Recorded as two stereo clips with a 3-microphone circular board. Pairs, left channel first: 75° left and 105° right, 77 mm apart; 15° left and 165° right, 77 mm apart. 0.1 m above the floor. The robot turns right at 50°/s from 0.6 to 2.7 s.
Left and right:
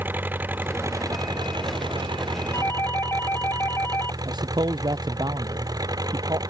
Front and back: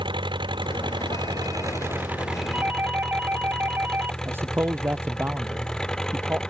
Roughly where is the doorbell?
Behind left.